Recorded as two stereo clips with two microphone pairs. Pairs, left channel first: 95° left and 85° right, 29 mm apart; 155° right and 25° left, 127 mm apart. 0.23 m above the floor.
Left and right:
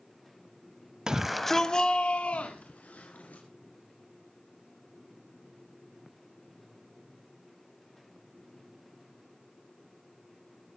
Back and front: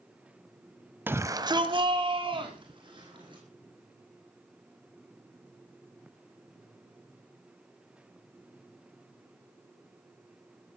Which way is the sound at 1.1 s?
40° right.